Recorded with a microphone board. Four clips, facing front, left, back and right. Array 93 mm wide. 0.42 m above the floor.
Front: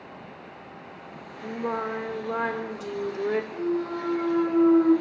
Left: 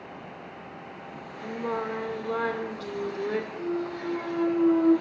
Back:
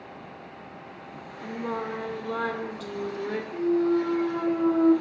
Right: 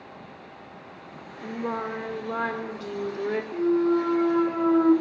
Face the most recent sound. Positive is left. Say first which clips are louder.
# right 9 dB, back 5 dB
turn(degrees=-85)